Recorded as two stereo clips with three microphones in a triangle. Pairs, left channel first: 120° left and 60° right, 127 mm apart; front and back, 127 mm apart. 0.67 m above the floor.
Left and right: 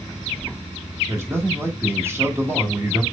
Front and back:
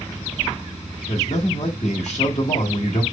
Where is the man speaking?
5° left, 1.4 m.